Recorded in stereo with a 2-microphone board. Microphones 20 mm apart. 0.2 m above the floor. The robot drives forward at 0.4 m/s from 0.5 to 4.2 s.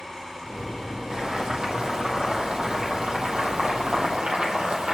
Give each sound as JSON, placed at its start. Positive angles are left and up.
{"t": 1.1, "sound": "boiling", "side_deg": -60, "distance_m": 3.0}